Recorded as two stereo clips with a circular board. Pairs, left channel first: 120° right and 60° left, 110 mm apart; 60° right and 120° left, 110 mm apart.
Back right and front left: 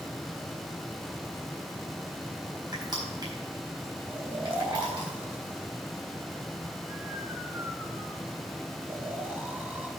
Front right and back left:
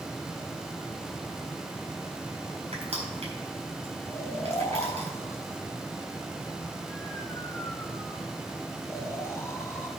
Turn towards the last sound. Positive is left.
turn(degrees=-5)